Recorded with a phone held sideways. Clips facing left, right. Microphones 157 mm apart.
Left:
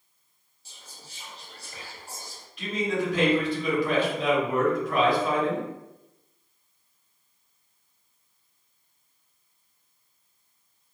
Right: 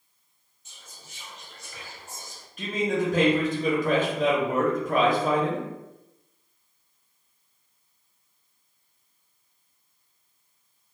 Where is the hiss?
No hiss in this recording.